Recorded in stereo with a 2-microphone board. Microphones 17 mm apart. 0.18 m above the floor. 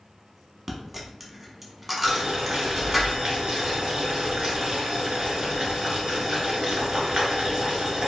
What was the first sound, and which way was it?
A dropped coin, 10° right (ahead or behind).